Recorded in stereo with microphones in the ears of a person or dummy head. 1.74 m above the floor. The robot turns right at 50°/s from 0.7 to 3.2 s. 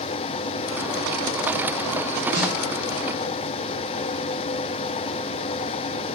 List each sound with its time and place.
2.3 s a snare drum: 70° right (ahead or behind), 8 m; by 2.5 s 55° right (ahead or behind), 8 m